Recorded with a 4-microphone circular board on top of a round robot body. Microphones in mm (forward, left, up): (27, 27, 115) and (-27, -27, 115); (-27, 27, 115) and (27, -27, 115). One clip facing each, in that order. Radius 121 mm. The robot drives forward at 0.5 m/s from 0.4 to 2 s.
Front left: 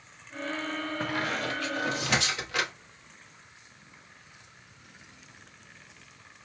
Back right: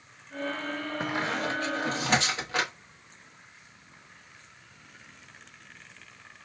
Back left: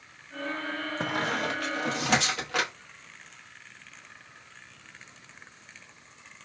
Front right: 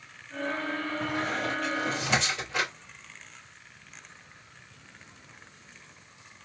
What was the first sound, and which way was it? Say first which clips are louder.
A squeak: back right 2 dB, back left 3 dB; 150° left.